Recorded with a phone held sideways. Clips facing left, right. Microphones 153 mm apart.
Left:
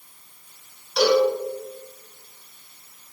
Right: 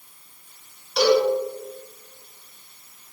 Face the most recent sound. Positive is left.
turn(degrees=0)  # may be behind; listen again after turning